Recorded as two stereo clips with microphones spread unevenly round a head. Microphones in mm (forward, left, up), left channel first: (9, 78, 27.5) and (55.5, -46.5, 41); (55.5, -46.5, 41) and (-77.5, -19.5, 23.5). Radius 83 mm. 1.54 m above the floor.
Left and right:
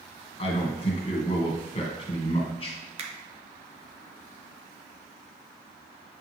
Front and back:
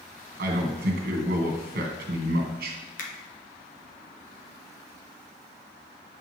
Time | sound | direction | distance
0.4 | a man speaking | 165° left | 1.6 m
3.0 | a finger snap | 35° right | 1.0 m